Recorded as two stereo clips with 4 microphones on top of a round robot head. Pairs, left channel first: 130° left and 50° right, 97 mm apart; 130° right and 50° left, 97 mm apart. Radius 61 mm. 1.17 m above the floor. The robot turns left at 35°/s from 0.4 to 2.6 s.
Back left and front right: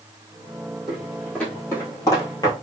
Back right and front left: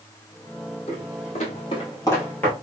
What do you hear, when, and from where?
0.9 s footsteps: 130° right, 1.9 m; by 2.5 s 160° left, 1.2 m